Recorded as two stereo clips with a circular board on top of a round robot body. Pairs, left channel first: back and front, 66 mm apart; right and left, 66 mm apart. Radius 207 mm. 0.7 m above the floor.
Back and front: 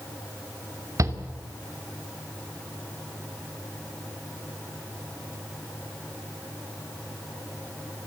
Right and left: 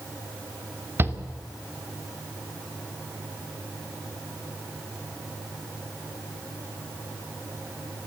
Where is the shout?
35° left, 3 m.